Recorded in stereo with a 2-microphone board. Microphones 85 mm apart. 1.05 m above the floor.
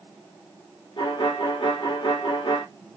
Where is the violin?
75° left (ahead or behind), 2.5 m.